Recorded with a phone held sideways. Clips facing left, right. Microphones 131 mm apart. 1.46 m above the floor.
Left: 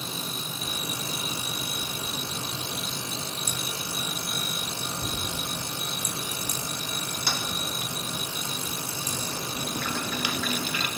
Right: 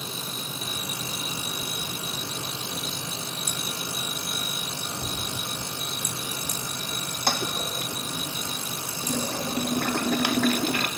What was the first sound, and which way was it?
Tapping, 65° right (ahead or behind).